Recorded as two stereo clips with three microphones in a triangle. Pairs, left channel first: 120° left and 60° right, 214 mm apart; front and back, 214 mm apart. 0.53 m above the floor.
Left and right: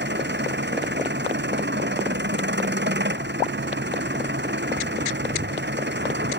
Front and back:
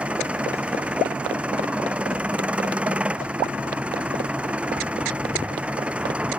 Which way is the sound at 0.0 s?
95° right.